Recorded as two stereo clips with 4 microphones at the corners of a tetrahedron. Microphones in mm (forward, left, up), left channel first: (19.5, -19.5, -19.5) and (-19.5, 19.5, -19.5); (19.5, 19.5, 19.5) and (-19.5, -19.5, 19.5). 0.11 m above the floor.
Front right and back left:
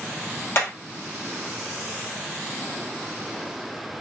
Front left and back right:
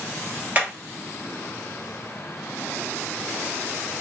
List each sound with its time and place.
0.6 s hammering: 80° right, 1.8 m